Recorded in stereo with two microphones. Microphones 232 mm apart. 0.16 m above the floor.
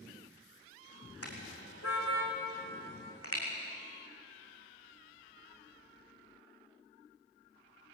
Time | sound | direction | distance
1.2 | a car horn | 80° left | 4 m